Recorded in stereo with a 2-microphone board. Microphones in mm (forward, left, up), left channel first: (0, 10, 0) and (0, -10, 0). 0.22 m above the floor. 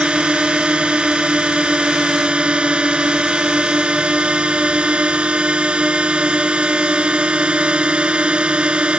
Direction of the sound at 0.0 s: 55° right (ahead or behind).